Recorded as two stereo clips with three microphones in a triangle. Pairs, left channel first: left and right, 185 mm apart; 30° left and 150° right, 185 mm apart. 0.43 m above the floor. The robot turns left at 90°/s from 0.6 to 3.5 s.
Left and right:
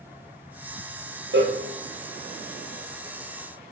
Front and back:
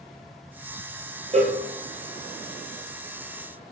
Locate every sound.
1.3 s a cowbell: 95° right, 1.8 m; by 1.6 s 120° right, 1.8 m